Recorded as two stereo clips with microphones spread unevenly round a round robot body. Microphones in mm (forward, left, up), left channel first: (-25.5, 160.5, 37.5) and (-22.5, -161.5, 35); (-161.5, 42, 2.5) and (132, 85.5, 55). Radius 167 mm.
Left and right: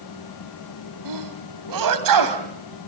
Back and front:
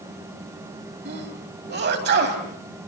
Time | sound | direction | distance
1.1 | a sneeze | 55° right | 3 m